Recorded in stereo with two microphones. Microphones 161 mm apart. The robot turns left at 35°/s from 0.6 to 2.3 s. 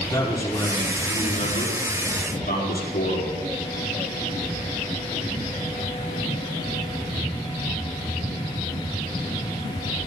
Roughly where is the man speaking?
Behind.